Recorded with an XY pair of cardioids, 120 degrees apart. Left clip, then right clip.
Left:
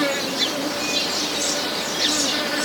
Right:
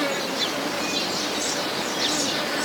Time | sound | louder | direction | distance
0.0 | an insect | left 3 dB | 25° left | ?